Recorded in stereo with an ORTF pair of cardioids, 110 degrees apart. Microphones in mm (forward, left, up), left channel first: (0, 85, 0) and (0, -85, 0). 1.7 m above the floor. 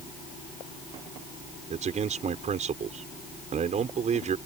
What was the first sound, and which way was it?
A man speaking, 45° right.